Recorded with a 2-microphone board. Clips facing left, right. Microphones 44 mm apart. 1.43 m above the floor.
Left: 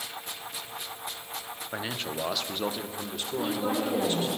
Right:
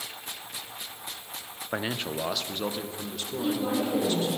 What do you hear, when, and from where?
1.7 s a man speaking: 25° right (ahead or behind), 0.5 m; by 4.4 s 20° left (ahead or behind), 1.9 m
3.4 s a woman speaking: 20° left (ahead or behind), 5 m